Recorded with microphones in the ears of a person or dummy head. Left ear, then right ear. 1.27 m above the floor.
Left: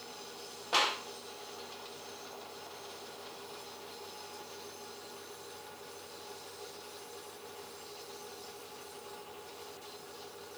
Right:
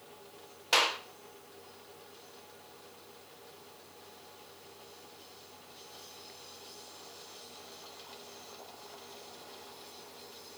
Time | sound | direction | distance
0.7 | a clap | 75° right (ahead or behind) | 4.5 m